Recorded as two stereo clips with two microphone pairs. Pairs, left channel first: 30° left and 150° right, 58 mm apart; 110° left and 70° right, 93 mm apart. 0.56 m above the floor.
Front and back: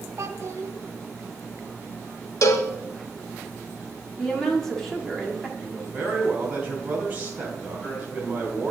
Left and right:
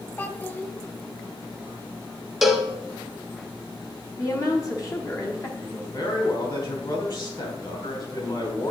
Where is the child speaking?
Straight behind, 0.8 m.